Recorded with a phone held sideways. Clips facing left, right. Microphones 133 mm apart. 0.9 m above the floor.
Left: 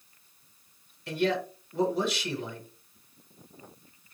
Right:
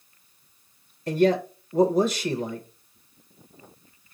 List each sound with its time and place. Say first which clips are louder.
1.1 s a man speaking: right 7 dB; 40° right (ahead or behind), 0.7 m